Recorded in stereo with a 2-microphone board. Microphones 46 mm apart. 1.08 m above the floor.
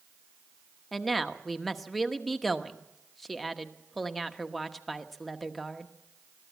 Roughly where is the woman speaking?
Centre.